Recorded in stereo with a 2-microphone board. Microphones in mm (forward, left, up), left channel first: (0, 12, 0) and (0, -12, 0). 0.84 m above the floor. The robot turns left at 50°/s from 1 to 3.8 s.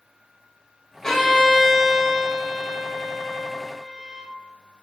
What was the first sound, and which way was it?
A violin, 25° left.